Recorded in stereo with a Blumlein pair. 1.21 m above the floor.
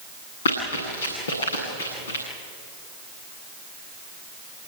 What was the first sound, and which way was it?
Running footsteps, 65° left.